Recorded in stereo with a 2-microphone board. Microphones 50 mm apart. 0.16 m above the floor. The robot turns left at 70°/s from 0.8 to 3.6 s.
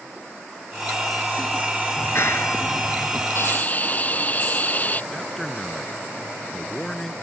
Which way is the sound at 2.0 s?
125° left.